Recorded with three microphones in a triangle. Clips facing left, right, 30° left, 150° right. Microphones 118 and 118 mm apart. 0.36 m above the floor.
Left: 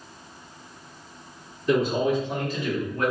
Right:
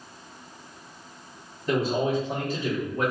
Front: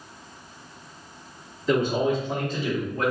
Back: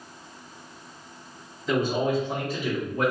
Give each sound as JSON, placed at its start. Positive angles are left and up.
{"t": 1.7, "sound": "a man speaking", "azimuth_deg": -75, "distance_m": 1.5}